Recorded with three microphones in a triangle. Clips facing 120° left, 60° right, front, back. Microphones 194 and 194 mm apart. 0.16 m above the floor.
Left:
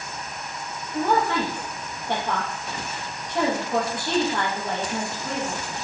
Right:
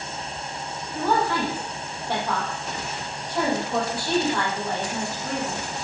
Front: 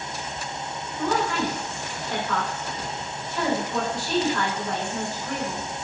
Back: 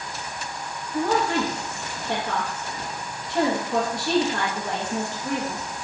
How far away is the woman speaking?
About 5.5 m.